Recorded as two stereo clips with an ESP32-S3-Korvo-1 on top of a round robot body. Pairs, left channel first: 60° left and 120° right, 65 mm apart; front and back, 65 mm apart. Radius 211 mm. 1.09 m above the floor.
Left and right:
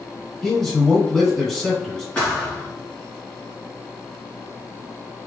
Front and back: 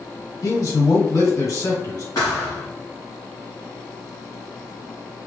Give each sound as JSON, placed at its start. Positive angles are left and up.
{"t": 0.4, "sound": "a man speaking", "azimuth_deg": -25, "distance_m": 2.0}
{"t": 2.1, "sound": "a thud", "azimuth_deg": -15, "distance_m": 0.6}